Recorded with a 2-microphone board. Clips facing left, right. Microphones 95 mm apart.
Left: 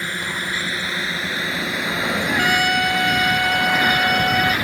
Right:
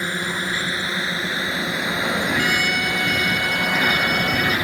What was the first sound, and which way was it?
A drone, 20° right (ahead or behind).